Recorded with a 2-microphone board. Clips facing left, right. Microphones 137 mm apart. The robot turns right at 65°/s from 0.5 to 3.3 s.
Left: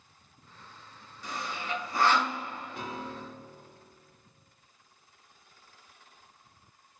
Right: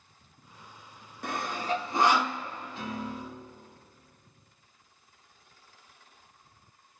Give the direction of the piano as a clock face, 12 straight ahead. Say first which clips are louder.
Right 4 dB; 10 o'clock.